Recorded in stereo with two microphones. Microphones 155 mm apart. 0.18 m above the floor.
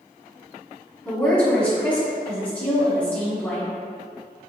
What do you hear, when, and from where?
1.1 s a woman speaking: 10° left (ahead or behind), 1.3 m